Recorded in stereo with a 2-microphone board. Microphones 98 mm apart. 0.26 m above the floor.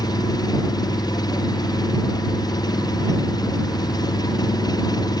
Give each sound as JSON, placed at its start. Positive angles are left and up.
{"t": 0.0, "sound": "an engine running", "side_deg": 40}